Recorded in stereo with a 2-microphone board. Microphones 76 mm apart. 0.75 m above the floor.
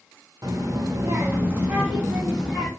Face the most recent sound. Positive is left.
turn(degrees=-5)  # may be behind; listen again after turning